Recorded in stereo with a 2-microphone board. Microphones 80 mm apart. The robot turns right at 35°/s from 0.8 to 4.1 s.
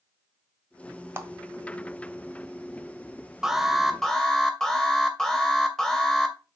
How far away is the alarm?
About 2 m.